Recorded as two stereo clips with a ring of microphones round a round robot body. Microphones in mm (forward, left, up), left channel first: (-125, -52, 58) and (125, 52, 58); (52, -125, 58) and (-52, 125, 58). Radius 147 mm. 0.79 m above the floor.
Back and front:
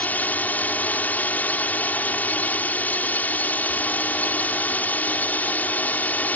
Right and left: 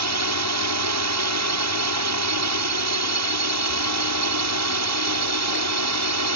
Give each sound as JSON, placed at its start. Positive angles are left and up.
{"t": 0.0, "sound": "a drone", "azimuth_deg": 120}